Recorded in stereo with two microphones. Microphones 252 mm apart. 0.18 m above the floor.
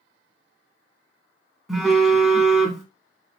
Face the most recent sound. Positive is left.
turn(degrees=0)  # may be behind; listen again after turning